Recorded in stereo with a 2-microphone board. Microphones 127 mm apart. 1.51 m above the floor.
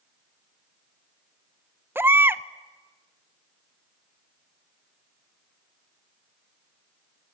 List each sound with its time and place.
1.9 s a baby crying: 15° right (ahead or behind), 0.6 m